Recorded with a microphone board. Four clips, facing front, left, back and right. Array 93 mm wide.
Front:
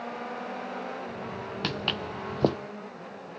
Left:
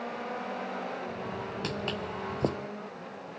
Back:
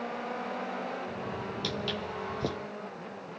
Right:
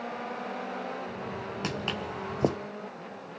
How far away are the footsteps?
About 0.6 m.